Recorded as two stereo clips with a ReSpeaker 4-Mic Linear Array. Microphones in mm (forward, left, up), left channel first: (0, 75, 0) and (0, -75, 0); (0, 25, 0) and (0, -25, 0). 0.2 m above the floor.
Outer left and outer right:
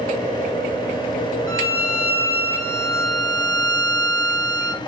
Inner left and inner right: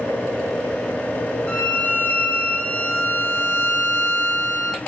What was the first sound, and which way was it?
A violin, 25° left (ahead or behind).